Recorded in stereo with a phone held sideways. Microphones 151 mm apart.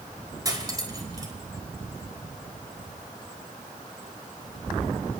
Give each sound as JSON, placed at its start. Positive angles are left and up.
{"t": 0.5, "sound": "cutlery clinking", "side_deg": -25, "distance_m": 3.5}